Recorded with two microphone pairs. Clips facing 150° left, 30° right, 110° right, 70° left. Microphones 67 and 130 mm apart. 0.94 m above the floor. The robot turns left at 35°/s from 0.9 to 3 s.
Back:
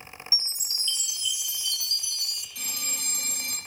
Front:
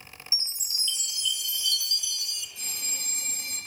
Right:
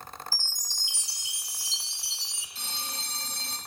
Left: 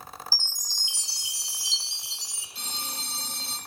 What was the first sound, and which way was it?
A chime, 125° right.